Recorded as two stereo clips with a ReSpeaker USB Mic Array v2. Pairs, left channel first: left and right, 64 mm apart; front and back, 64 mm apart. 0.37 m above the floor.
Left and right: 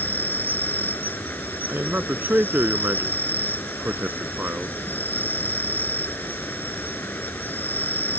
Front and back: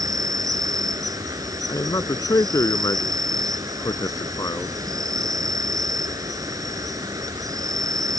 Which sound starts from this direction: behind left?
An insect, at 0.0 s.